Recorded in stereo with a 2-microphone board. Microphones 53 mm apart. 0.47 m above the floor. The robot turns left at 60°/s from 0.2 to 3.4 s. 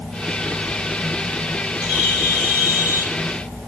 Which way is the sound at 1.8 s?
5° right.